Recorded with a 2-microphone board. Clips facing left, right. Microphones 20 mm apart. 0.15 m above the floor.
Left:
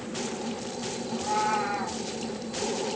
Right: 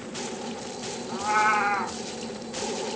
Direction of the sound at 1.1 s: 75° right (ahead or behind).